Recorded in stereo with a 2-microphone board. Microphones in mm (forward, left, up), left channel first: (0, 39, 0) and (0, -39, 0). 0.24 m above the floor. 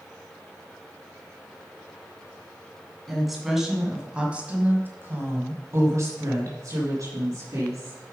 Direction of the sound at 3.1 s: Centre (ahead or behind).